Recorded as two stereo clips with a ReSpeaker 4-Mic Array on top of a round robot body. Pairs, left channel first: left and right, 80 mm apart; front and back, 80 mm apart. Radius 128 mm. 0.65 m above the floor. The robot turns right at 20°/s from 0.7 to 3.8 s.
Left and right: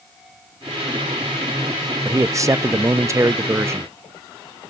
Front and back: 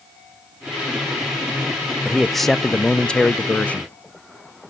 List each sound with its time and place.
2.0 s a man speaking: 95° right, 0.5 m; by 3.9 s 60° right, 0.5 m